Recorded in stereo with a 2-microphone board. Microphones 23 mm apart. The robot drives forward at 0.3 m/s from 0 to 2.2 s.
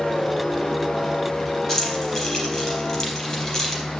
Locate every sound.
1.7 s keys jangling: 30° left (ahead or behind), 4 m